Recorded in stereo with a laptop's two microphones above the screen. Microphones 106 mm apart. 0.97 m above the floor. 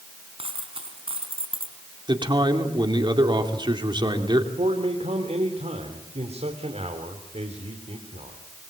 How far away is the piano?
No piano in this recording.